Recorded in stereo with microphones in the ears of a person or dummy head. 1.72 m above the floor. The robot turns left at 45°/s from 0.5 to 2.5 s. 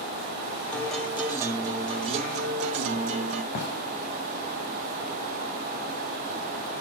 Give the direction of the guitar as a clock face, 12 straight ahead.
12 o'clock.